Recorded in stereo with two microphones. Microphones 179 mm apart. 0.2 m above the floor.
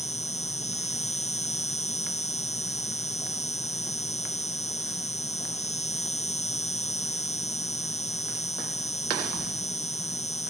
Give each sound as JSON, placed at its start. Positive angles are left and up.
{"t": 0.0, "sound": "an insect", "side_deg": 40}